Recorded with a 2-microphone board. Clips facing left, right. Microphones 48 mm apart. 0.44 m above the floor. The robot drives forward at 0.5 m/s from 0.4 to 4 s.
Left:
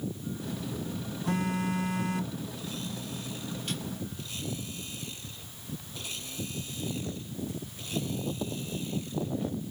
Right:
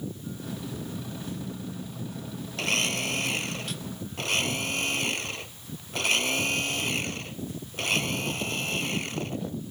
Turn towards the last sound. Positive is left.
turn(degrees=-75)  # may be behind; listen again after turning